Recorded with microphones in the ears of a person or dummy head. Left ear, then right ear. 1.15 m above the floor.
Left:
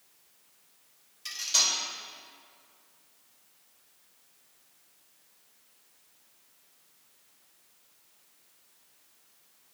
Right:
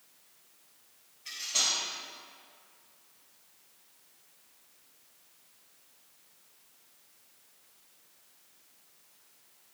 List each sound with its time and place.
1.2 s cutlery clinking: 80° left, 2.5 m